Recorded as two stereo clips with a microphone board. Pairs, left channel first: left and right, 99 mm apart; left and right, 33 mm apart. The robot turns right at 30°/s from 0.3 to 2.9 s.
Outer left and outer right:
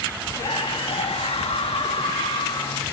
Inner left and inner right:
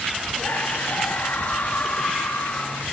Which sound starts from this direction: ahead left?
A scream, at 0.4 s.